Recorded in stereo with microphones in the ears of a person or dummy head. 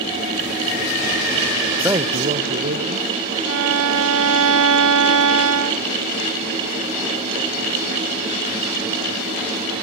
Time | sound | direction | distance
1.8 | a man speaking | 10° right (ahead or behind) | 0.8 m
3.5 | a violin | 70° right (ahead or behind) | 0.9 m